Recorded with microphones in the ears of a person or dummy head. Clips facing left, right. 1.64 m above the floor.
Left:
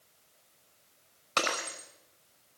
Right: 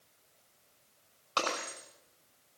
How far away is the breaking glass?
About 5.5 m.